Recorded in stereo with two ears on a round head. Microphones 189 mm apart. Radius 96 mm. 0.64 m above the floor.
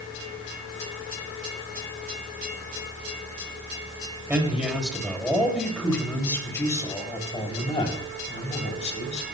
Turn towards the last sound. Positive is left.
turn(degrees=35)  # may be behind; listen again after turning